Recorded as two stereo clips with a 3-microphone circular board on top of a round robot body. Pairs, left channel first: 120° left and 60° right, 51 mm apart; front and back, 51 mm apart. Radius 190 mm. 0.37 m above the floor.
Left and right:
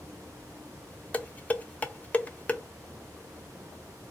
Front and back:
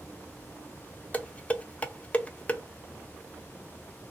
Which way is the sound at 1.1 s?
60° left.